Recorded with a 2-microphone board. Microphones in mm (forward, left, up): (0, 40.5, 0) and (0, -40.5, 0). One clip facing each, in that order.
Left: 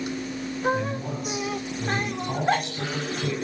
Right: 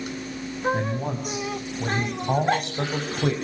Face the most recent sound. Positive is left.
turn(degrees=-65)  # may be behind; listen again after turning